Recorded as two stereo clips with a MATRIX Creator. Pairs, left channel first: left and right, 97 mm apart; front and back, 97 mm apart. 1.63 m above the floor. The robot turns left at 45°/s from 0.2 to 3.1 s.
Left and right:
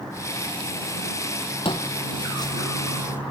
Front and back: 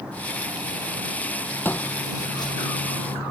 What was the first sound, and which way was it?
Footsteps, 70° left.